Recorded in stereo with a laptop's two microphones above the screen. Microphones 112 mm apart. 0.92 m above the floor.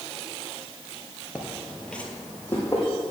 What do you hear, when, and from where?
1.4 s footsteps: 15° right (ahead or behind), 0.9 m; by 2.8 s 20° left (ahead or behind), 2 m